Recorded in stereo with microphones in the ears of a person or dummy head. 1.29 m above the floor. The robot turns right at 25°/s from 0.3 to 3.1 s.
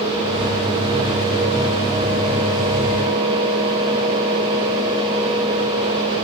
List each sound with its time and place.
Only background noise.